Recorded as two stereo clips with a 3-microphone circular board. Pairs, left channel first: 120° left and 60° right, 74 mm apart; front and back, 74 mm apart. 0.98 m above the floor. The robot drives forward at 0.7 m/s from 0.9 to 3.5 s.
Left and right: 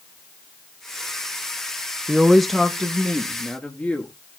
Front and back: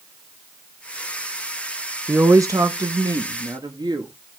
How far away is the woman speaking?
About 0.5 m.